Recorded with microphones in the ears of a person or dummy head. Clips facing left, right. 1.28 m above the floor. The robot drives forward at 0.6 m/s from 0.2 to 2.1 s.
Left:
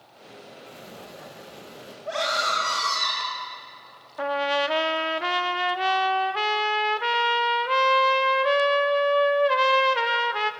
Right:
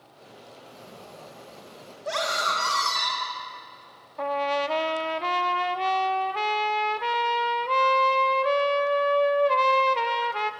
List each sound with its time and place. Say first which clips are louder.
0.7 s a sliding door: left 2 dB; 15° left (ahead or behind), 0.8 m; by 1.9 s 10° left (ahead or behind), 1.6 m
2.0 s a scream: left 1 dB; 55° right (ahead or behind), 5.5 m
4.2 s a trumpet: left 1 dB; 5° left (ahead or behind), 0.9 m